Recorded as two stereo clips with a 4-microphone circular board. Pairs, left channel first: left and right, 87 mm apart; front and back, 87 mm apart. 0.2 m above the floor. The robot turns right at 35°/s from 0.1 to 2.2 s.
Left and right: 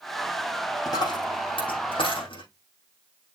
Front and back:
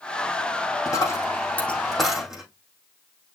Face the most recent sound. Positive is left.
turn(degrees=95)